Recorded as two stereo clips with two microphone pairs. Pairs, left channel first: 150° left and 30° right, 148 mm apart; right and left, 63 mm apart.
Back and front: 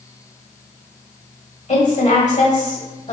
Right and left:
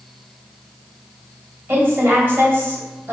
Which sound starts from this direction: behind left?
A woman speaking, at 1.7 s.